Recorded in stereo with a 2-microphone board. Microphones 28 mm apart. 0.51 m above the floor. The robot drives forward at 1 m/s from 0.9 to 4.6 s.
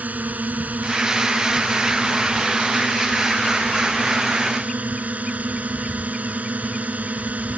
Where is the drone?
75° right (ahead or behind); by 7.6 s 65° right (ahead or behind).